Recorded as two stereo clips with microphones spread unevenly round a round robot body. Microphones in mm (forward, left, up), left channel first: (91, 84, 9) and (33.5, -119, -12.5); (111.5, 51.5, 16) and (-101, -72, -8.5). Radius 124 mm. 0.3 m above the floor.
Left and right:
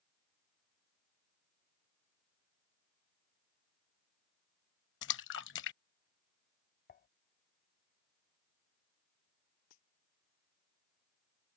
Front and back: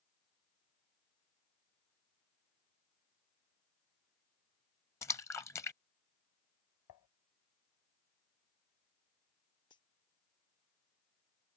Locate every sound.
5.0 s a splash: 110° left
6.9 s dishes clattering: 35° left
9.7 s a dropped coin: 100° left